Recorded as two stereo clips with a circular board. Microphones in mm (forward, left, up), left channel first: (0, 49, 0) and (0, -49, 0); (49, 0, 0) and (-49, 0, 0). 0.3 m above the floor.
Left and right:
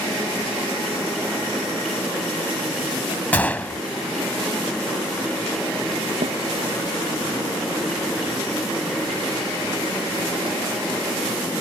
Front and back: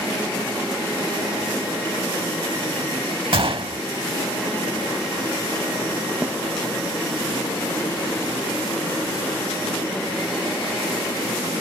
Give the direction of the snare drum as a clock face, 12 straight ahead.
4 o'clock.